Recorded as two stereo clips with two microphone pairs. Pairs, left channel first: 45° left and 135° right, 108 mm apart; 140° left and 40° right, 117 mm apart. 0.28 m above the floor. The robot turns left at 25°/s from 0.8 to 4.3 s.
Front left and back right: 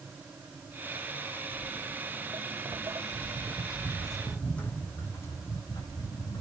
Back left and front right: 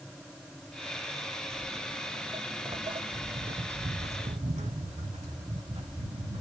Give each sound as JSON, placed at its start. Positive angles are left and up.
{"t": 1.5, "sound": "footsteps", "azimuth_deg": -75, "distance_m": 1.2}